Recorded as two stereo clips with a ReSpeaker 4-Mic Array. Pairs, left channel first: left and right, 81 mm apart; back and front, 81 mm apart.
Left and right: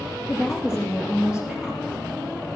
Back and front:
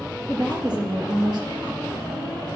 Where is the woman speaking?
15° right, 4.5 m.